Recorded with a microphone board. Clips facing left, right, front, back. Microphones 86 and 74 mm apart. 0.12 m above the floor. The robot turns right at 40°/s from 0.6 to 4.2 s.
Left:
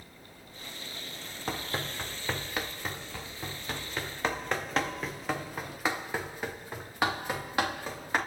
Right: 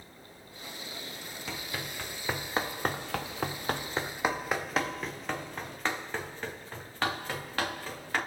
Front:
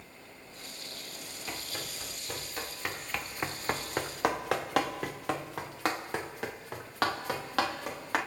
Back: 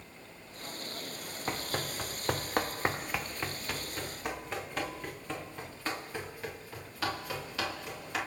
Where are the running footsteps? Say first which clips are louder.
Left 5 dB, back 6 dB; 135° left, 1.5 m; by 8.2 s 20° left, 4 m.